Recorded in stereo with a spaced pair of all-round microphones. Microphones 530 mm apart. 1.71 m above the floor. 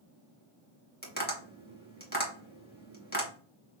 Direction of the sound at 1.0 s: 15° left (ahead or behind).